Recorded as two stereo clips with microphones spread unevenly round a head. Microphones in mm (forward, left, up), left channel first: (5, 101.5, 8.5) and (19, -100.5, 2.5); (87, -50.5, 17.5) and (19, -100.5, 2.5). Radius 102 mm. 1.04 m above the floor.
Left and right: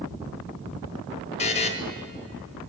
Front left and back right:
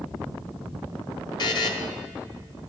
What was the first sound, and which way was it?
A buzzer, 40° left.